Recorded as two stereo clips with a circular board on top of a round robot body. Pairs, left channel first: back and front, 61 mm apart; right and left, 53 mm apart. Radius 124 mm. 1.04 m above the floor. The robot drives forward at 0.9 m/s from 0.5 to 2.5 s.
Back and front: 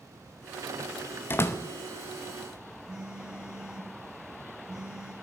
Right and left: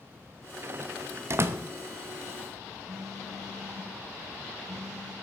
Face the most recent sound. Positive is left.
turn(degrees=80)